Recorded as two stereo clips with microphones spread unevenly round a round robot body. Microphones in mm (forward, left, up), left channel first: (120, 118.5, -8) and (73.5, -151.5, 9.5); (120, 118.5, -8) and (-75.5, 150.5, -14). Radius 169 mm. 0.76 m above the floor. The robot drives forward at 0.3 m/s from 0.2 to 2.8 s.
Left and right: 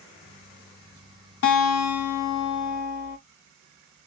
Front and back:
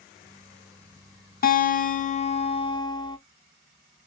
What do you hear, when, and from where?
1.4 s a guitar: 40° left, 0.9 m; by 3.2 s 60° left, 0.7 m